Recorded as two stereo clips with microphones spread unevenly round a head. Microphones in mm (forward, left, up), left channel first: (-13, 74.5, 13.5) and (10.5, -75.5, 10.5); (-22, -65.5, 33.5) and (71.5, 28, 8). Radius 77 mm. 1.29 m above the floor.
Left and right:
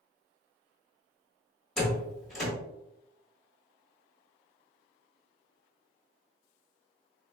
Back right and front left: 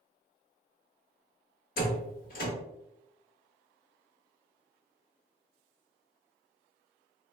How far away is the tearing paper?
I don't hear tearing paper.